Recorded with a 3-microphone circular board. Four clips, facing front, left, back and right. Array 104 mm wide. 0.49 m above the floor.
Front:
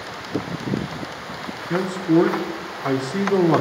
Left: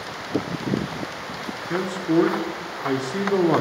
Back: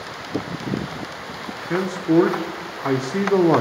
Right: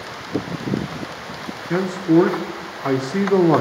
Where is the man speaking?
120° right, 1.0 m.